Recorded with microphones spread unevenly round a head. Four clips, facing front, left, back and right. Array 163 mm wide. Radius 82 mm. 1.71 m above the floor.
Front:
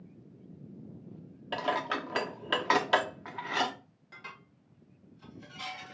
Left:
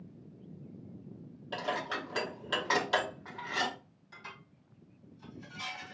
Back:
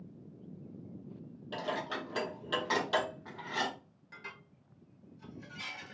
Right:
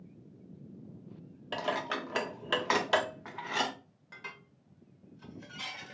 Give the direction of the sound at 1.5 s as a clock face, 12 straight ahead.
1 o'clock.